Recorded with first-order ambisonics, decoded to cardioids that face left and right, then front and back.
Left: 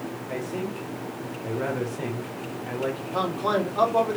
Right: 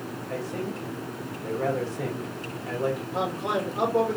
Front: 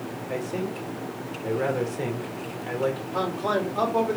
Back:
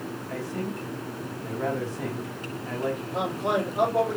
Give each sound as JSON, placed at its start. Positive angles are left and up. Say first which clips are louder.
{"t": 0.3, "sound": "a man speaking", "louder": "left 1 dB, front 4 dB", "azimuth_deg": 25, "distance_m": 2.0}
{"t": 3.1, "sound": "a man speaking", "louder": "left 7 dB, back 2 dB", "azimuth_deg": 60, "distance_m": 1.6}